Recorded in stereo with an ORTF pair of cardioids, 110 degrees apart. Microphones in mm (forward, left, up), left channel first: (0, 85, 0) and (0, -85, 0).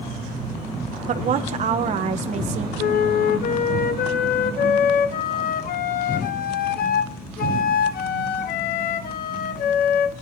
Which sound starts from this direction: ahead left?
A flute, at 2.8 s.